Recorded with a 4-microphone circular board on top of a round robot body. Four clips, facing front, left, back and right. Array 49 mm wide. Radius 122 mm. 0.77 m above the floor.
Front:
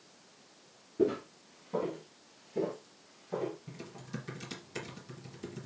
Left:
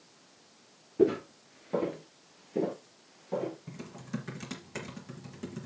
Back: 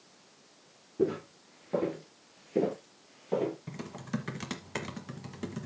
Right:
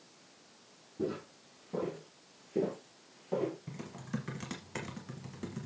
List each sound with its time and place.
1.0 s footsteps: 90° left, 1.0 m; by 3.6 s 165° right, 1.6 m
3.7 s typing on a keyboard: 175° right, 1.1 m